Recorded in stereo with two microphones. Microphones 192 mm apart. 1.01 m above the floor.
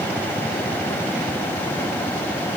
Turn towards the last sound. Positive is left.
No sound to turn to.